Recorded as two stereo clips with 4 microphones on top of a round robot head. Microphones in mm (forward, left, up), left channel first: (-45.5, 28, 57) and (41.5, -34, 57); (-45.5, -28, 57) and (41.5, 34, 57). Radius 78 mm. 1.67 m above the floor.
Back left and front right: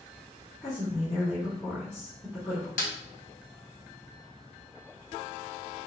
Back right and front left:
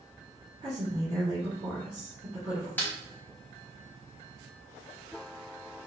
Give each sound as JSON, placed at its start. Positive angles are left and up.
{"t": 0.6, "sound": "a woman speaking", "azimuth_deg": 75, "distance_m": 2.0}
{"t": 2.8, "sound": "a snare drum", "azimuth_deg": 140, "distance_m": 1.0}